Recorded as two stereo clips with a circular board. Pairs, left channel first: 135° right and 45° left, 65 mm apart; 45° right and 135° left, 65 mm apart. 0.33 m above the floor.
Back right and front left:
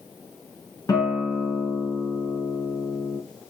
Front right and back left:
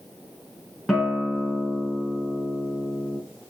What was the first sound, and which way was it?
A guitar, 135° right.